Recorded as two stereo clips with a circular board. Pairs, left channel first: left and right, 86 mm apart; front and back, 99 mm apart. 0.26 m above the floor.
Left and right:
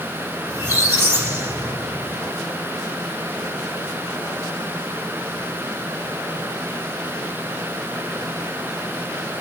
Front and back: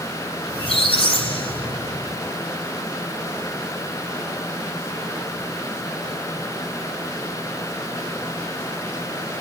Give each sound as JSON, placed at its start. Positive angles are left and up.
{"t": 0.5, "sound": "a squeak", "azimuth_deg": -20, "distance_m": 5.5}